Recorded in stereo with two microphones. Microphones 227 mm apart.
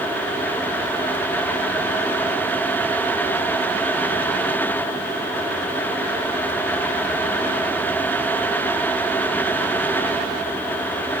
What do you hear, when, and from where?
Only background noise.